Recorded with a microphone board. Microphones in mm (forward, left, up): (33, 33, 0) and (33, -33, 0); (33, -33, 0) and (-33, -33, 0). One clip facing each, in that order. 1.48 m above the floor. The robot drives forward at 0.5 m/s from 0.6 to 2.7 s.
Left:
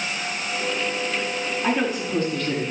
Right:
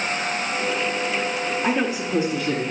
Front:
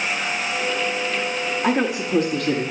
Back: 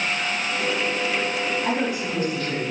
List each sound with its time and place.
1.6 s a woman speaking: 10° right, 2.5 m; by 2.7 s 15° right, 1.9 m